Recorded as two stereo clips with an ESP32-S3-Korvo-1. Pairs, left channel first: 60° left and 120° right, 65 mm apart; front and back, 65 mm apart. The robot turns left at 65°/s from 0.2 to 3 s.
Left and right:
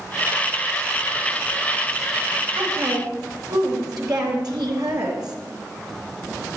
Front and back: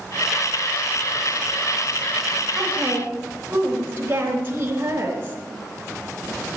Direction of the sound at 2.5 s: 95° right.